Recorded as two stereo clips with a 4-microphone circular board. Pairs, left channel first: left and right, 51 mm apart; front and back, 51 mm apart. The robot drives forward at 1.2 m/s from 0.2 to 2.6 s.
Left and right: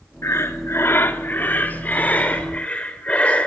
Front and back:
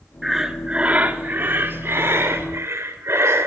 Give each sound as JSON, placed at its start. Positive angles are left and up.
{"t": 0.2, "sound": "breathing", "azimuth_deg": 95, "distance_m": 1.6}